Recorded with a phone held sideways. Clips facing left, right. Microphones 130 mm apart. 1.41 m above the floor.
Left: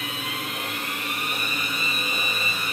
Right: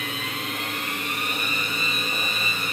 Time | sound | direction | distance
0.0 | a machine running | 10° left (ahead or behind) | 1.5 m